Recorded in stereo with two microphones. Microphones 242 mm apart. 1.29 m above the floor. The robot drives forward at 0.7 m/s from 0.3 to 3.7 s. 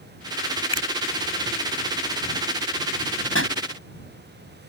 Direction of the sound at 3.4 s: 60° left (ahead or behind).